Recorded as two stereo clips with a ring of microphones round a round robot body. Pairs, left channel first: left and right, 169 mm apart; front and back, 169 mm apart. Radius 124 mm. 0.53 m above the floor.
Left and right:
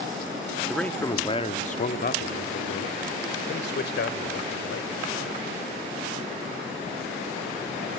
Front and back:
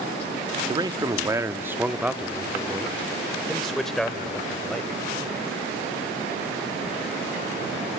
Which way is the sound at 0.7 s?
Straight behind.